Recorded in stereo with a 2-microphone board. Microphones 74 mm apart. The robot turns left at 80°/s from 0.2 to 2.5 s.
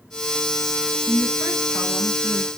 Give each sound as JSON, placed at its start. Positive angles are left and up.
{"t": 1.1, "sound": "a woman speaking", "azimuth_deg": 120, "distance_m": 7.0}